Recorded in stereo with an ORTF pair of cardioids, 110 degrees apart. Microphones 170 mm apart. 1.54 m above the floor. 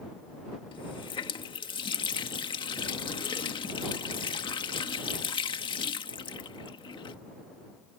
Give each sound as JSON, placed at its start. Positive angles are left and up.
{"t": 0.7, "sound": "a running tap", "azimuth_deg": 35}